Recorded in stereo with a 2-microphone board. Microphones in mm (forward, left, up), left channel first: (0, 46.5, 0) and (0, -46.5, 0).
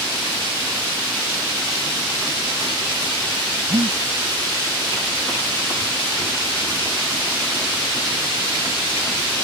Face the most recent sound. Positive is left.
turn(degrees=-65)  # may be behind; listen again after turning